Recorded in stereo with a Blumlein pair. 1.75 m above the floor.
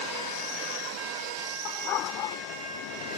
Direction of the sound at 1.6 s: 35° left.